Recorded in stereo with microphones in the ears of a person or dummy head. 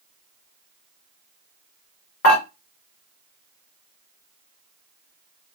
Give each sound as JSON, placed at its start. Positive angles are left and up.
{"t": 2.2, "sound": "dishes clattering", "side_deg": 35, "distance_m": 1.2}